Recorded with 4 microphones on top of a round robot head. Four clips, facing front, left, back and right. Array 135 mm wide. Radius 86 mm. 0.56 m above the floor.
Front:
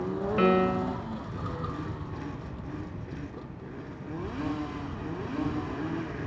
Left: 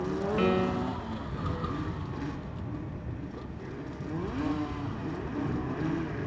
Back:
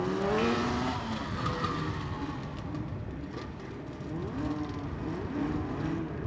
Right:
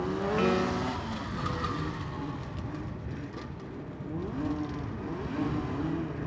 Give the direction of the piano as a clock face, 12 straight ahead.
12 o'clock.